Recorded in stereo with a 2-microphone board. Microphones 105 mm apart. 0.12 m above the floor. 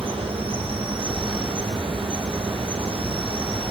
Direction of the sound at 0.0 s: 55° right (ahead or behind).